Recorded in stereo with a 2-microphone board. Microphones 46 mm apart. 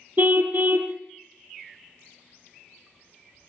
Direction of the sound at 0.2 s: 40° right (ahead or behind).